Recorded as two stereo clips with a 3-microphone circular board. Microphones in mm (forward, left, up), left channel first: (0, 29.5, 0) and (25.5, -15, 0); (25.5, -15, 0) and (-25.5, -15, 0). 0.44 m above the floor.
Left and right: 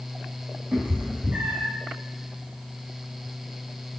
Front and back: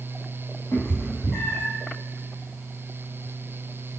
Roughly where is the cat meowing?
Ahead.